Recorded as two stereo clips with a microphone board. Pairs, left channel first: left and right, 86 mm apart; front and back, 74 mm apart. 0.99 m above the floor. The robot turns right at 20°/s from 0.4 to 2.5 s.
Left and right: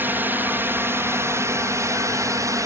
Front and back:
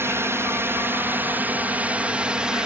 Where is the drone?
145° right; by 2.7 s 110° right.